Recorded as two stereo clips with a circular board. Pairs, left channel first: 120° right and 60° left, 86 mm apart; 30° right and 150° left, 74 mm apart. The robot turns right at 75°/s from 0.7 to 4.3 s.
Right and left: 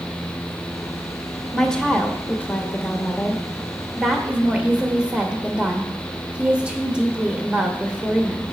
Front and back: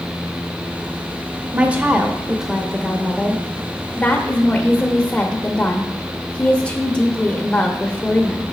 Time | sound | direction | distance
1.5 | a woman speaking | 160° left | 0.8 m